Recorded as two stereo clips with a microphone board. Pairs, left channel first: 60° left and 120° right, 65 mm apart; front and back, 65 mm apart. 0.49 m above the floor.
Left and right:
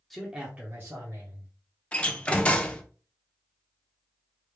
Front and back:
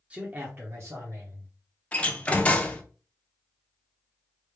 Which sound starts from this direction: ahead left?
A door slam, at 1.9 s.